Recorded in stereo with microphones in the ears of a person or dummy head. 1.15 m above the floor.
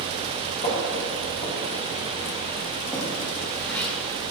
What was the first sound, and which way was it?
Footsteps, 40° left (ahead or behind).